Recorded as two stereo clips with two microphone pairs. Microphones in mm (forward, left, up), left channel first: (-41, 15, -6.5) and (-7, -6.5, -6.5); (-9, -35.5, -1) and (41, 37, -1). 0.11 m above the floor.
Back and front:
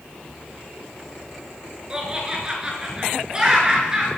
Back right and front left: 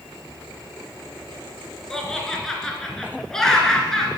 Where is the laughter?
50° right, 1.7 m.